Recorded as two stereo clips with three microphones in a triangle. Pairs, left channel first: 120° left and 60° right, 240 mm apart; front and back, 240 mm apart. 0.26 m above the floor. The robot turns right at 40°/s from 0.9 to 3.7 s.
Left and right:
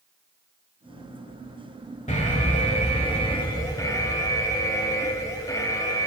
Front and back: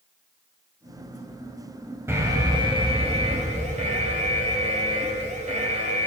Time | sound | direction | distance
2.1 | an alarm | 115° left | 1.1 m